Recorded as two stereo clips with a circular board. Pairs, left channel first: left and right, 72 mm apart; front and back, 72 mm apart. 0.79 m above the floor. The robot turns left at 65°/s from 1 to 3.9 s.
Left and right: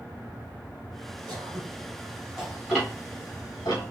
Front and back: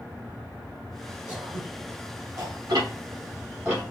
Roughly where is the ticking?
Behind.